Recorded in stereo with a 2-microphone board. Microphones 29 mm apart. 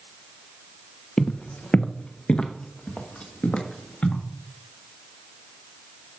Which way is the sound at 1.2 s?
30° left (ahead or behind).